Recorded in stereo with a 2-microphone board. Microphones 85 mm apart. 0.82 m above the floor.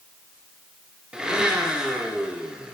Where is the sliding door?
I don't hear a sliding door.